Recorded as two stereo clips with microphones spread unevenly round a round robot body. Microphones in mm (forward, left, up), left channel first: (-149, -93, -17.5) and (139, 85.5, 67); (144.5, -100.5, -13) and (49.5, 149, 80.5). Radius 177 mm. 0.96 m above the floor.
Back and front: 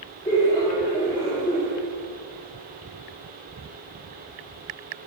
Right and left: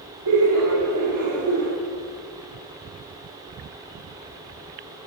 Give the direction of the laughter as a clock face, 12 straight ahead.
7 o'clock.